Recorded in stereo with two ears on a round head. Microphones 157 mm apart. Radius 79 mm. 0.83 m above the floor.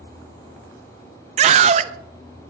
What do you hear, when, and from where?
1.4 s a scream: 40° right (ahead or behind), 0.5 m